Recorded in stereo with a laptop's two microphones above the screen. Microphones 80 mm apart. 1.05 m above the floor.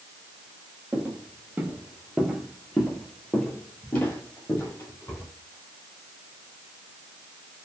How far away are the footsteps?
About 1.5 m.